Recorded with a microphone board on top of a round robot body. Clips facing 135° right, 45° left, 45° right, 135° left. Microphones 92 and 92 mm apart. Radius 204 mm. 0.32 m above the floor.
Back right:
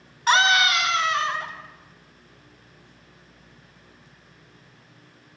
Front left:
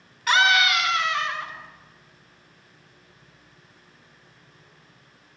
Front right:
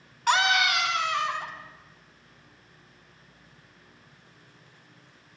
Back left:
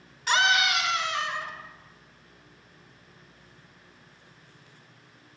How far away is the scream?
About 5 m.